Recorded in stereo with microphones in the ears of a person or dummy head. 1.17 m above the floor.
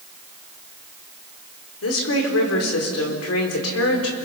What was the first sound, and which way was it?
A woman speaking, 85° left.